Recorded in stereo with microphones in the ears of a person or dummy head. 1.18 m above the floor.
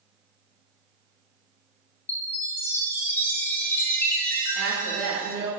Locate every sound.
2.1 s a chime: 15° left (ahead or behind), 1.6 m
4.5 s a woman speaking: 70° right (ahead or behind), 2.5 m